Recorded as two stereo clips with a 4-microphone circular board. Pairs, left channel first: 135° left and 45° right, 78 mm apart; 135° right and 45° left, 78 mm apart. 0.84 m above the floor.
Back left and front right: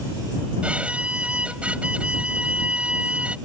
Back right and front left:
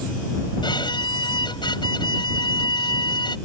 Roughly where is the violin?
Behind right.